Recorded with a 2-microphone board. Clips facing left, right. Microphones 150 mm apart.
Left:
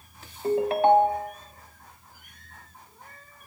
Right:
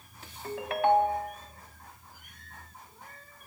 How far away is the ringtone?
About 0.8 m.